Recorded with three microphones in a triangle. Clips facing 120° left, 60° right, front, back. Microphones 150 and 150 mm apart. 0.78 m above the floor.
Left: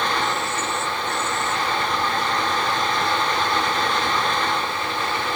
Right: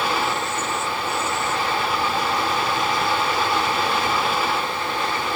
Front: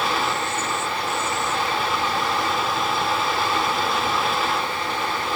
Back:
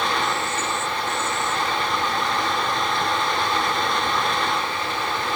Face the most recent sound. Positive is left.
No sound to turn to.